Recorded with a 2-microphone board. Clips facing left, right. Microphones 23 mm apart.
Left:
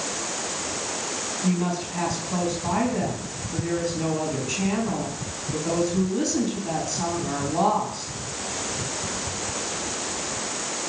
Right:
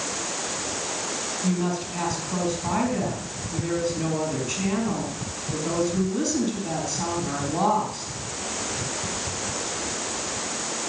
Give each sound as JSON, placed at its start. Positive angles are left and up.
{"t": 1.4, "sound": "a woman speaking", "side_deg": 5, "distance_m": 4.5}